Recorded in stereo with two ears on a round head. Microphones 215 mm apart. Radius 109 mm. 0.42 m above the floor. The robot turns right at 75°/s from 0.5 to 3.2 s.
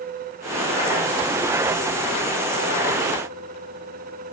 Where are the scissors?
No scissors in this recording.